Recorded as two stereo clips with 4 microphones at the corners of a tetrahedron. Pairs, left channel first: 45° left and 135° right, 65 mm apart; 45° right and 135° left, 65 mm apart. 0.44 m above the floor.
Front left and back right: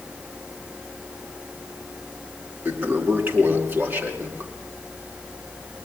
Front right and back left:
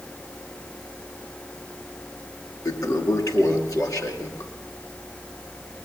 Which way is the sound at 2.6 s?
75° right.